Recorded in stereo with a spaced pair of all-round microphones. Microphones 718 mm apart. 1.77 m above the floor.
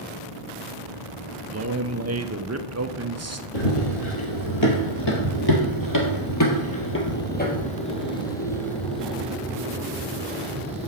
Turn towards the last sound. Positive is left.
turn(degrees=-10)  # may be behind; listen again after turning